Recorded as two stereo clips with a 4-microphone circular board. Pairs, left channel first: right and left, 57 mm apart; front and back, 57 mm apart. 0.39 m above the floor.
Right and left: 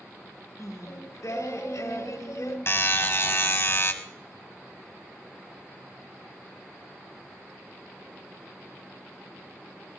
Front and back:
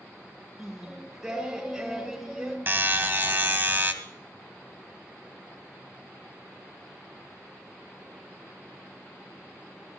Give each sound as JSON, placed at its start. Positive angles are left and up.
{"t": 0.6, "sound": "singing", "azimuth_deg": -95, "distance_m": 4.5}
{"t": 2.7, "sound": "a buzzer", "azimuth_deg": -130, "distance_m": 1.7}